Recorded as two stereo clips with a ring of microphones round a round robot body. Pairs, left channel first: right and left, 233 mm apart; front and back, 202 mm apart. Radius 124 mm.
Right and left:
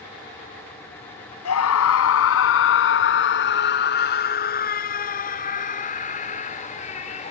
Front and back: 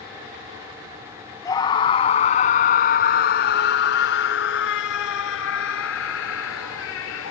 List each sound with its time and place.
1.4 s a scream: 75° right; by 7.3 s 30° right